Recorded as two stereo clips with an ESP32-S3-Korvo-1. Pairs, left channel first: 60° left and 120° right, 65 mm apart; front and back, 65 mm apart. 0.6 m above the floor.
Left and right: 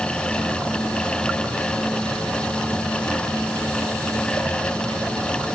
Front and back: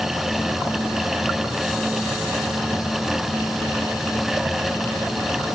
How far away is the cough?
I don't hear a cough.